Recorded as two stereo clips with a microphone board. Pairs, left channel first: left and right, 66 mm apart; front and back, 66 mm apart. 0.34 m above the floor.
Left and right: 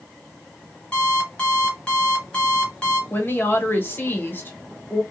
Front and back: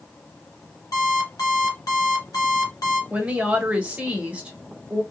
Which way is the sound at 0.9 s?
15° left.